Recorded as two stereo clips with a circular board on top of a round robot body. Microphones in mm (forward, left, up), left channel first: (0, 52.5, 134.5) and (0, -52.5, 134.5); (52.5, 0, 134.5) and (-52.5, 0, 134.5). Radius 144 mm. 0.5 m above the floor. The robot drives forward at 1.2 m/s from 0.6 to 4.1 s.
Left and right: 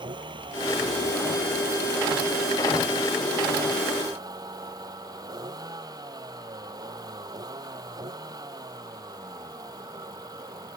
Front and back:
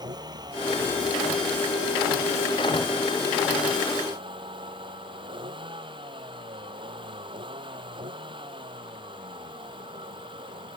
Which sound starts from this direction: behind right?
A vehicle, at 0.0 s.